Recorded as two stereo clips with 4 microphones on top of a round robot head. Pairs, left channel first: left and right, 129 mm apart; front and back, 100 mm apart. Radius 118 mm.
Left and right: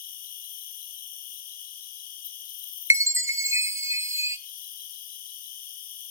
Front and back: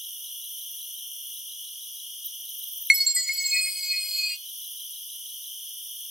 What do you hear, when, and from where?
0.0 s an insect: 95° left, 1.7 m
2.9 s a chime: 95° right, 0.8 m